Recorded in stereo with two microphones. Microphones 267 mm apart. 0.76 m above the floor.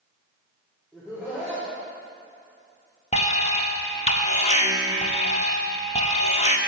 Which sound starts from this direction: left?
An alarm, at 3.1 s.